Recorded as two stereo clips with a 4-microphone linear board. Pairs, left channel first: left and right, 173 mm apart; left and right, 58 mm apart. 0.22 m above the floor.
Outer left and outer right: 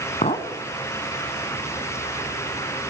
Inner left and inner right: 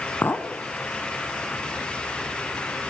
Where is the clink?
40° left (ahead or behind), 1.5 m.